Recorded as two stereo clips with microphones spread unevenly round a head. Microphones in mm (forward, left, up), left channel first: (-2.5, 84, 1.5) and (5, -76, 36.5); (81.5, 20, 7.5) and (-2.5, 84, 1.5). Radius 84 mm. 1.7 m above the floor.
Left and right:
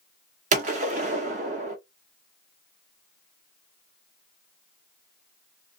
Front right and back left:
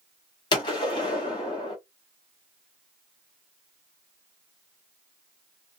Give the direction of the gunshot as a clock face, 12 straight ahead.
3 o'clock.